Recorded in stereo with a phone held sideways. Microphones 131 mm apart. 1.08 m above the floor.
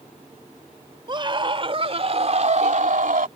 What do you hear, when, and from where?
1.1 s a scream: 35° right (ahead or behind); by 3.3 s 75° right (ahead or behind)